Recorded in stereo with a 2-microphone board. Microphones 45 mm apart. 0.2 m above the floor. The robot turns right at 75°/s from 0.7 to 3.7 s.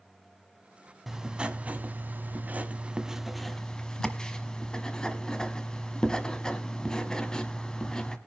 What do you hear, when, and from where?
1.1 s writing: 175° right, 1.2 m; by 8.2 s 25° left, 1.2 m